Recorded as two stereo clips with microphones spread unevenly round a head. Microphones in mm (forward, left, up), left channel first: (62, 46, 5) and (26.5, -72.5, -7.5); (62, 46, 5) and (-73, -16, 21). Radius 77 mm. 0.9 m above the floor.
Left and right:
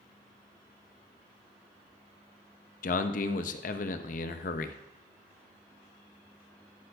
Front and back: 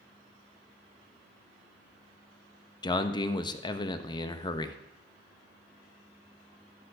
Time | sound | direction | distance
2.8 | a man speaking | 80° left | 0.6 m